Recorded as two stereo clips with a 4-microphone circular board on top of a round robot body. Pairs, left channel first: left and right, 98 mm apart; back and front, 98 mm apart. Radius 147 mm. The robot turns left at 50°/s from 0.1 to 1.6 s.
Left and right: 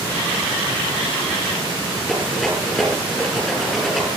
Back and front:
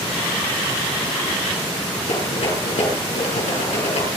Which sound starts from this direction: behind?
A rattle, at 2.1 s.